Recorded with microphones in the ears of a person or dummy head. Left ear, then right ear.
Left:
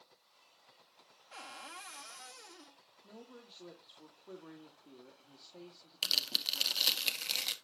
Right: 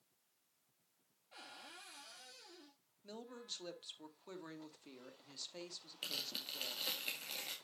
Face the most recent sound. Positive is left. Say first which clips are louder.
# left 11 dB
turn(degrees=50)  # may be behind; listen again after turning